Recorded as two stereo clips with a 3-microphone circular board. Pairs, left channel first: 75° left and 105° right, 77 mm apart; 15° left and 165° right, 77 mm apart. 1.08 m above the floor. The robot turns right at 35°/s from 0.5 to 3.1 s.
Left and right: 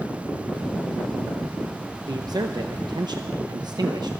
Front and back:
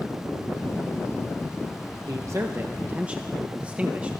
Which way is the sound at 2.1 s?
130° right.